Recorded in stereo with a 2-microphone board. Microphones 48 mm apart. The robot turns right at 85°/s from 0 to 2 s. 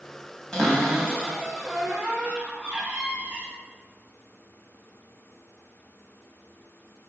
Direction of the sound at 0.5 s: 150° left.